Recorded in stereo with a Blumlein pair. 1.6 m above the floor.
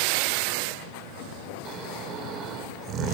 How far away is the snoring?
About 3.5 m.